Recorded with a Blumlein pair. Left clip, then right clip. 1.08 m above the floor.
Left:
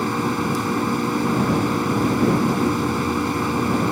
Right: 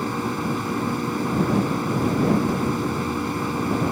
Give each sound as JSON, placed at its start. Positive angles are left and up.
{"t": 0.0, "sound": "a machine running", "azimuth_deg": 10}